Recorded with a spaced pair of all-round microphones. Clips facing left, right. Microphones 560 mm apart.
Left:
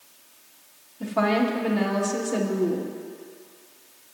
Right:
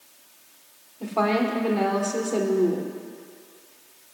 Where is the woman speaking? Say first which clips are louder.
Left 1 dB; 40° left (ahead or behind), 1.3 m.